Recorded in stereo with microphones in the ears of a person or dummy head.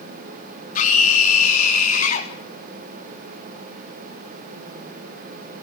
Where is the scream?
50° left (ahead or behind), 4 m.